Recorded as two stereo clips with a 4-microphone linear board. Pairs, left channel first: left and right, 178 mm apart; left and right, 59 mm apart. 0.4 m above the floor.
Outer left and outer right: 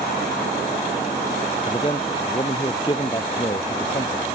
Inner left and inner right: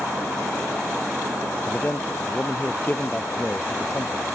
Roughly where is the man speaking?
Left.